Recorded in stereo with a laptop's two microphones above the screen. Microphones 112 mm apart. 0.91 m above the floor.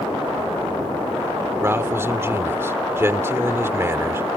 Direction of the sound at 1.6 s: 20° right (ahead or behind).